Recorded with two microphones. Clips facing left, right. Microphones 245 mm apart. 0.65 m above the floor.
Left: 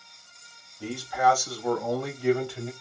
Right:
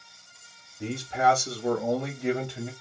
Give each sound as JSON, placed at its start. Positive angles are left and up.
{"t": 0.8, "sound": "a man speaking", "side_deg": -20, "distance_m": 0.8}